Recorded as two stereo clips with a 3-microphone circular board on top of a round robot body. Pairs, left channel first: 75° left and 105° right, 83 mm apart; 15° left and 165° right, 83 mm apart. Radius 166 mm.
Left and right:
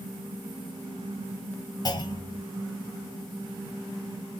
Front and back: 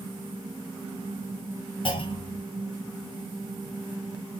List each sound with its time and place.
1.9 s a clunk: 30° left, 1.0 m